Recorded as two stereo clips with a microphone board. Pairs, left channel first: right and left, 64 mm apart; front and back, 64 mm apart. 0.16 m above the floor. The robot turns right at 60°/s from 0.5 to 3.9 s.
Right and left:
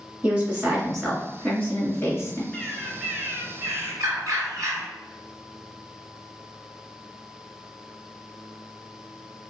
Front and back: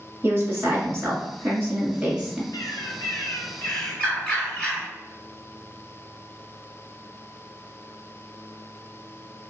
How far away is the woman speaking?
About 1.8 m.